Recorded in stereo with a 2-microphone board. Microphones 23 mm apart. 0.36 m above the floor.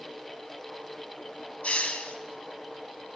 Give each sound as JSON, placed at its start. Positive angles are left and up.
{"t": 1.6, "sound": "a hiss", "side_deg": 70, "distance_m": 1.5}